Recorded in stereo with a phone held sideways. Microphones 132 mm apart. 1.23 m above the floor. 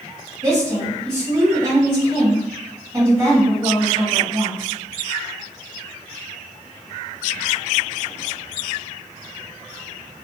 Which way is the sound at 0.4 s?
35° right (ahead or behind).